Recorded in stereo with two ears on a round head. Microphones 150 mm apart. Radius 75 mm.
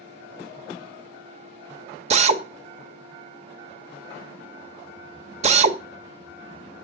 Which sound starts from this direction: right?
A drill, at 2.1 s.